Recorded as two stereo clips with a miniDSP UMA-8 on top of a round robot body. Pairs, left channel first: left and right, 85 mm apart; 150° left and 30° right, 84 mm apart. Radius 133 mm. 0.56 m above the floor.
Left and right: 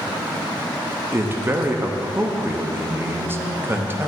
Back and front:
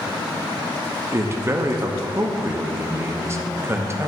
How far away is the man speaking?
About 0.9 m.